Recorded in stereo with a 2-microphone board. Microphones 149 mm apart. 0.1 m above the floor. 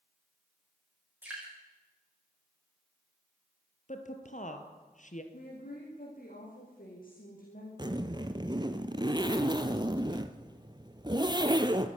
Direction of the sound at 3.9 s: 55° left (ahead or behind).